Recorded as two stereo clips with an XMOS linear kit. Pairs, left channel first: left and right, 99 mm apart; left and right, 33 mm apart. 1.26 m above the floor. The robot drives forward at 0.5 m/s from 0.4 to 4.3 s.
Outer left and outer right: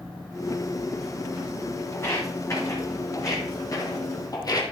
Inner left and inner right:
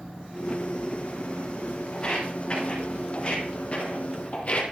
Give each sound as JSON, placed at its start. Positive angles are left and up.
{"t": 1.9, "sound": "footsteps", "side_deg": 30, "distance_m": 5.0}